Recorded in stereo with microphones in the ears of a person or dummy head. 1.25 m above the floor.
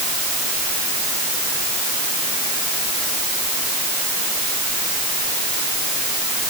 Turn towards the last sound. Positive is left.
No sound to turn to.